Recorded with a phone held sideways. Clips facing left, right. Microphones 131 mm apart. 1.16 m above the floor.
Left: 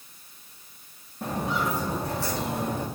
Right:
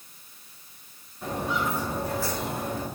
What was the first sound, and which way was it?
Footsteps, 75° left (ahead or behind).